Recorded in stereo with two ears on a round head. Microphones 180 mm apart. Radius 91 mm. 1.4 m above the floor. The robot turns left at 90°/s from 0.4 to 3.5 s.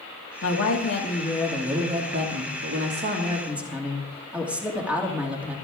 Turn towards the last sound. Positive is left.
turn(degrees=-170)